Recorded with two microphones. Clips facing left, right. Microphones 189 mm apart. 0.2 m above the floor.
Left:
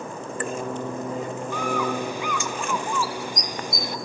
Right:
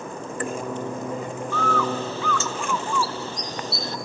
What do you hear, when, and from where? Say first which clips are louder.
1.5 s a bird: right 1 dB; 15° left (ahead or behind), 0.9 m